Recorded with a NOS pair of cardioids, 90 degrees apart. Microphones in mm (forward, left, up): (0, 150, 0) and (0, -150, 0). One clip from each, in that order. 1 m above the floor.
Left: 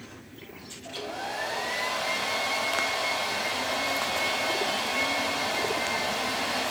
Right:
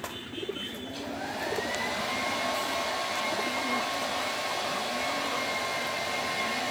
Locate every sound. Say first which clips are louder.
0.8 s a hair dryer: left 2 dB; 30° left, 2 m